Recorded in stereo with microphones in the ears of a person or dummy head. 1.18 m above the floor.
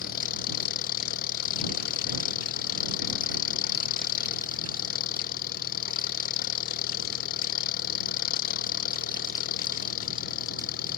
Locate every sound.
0.0 s an engine running: 60° left (ahead or behind)